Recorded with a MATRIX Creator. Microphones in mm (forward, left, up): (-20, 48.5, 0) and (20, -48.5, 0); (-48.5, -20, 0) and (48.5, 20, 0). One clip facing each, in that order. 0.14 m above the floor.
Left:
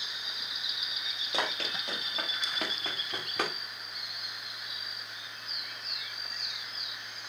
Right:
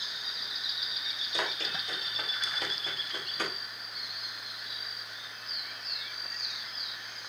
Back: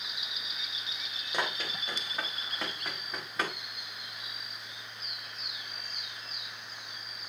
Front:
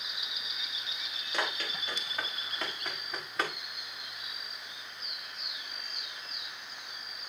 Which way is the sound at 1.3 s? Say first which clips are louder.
Left 2 dB, back 1 dB; 130° left.